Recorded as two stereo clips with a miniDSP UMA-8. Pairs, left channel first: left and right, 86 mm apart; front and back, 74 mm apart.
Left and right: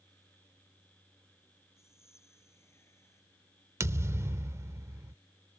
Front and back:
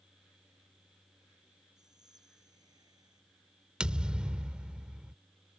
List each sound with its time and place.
1.8 s whispering: 150° left
3.8 s a thud: 110° right